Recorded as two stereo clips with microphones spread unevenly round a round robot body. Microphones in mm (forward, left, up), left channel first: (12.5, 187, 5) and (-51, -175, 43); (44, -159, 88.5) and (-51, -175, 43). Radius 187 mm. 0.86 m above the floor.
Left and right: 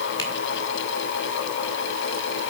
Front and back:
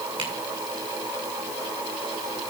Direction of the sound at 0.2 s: 160° left.